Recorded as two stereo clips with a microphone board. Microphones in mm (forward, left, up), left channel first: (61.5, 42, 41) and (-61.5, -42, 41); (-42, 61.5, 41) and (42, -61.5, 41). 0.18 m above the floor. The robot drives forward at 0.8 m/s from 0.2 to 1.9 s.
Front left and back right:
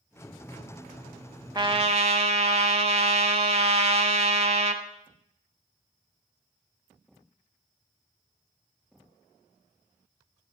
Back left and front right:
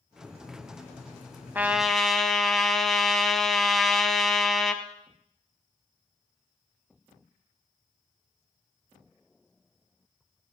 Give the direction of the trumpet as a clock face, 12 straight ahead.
4 o'clock.